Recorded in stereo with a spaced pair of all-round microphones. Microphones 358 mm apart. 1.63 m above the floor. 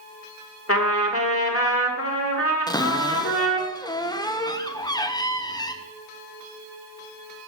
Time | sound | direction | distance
0.7 | a trumpet | 35° left (ahead or behind) | 1.6 m
2.7 | a cupboard door | 10° left (ahead or behind) | 0.7 m